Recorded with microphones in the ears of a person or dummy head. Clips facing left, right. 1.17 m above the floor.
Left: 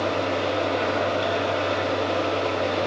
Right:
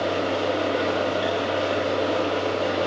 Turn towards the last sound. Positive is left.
turn(degrees=-10)  # may be behind; listen again after turning